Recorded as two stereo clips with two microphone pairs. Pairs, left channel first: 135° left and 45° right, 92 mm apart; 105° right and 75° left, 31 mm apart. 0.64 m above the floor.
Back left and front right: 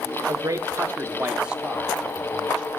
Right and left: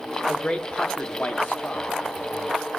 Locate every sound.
0.3 s a man speaking: 60° right, 0.8 m; by 2.7 s 135° right, 1.9 m